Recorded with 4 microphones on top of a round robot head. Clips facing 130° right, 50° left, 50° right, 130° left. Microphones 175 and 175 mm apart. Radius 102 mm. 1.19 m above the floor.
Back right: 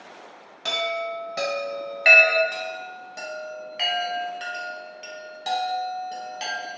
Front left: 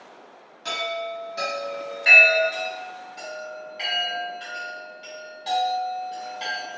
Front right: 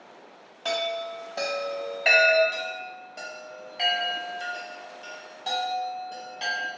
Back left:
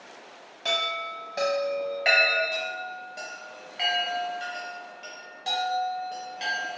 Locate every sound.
0.7 s a chime: 150° right, 0.7 m
2.5 s a chime: 155° right, 0.7 m